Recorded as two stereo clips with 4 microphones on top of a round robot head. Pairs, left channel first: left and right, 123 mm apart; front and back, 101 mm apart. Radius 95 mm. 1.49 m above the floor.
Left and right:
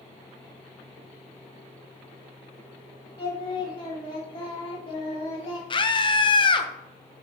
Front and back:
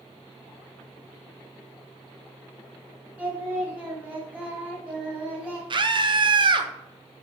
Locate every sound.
3.2 s singing: 110° left, 1.6 m
5.7 s a scream: 140° left, 1.0 m